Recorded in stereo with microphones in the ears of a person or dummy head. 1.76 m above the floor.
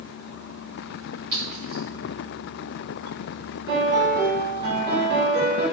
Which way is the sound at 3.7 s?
55° right (ahead or behind).